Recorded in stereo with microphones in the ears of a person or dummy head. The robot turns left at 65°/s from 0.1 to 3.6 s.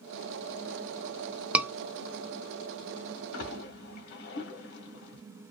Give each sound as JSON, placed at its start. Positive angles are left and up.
{"t": 1.5, "sound": "a scream", "side_deg": -5, "distance_m": 0.8}
{"t": 3.3, "sound": "a splash", "side_deg": 85, "distance_m": 1.3}